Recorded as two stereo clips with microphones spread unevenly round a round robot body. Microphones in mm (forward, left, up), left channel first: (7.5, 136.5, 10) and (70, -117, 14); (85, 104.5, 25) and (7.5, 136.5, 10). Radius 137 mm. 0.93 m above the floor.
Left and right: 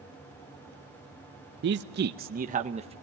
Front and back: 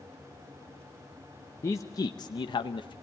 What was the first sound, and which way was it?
A man speaking, 85° right.